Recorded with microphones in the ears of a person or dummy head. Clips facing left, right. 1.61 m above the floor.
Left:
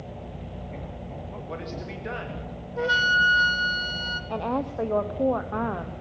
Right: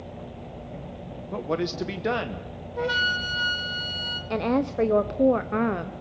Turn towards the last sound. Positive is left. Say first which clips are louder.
# right 4 dB
turn(degrees=-30)  # may be behind; listen again after turning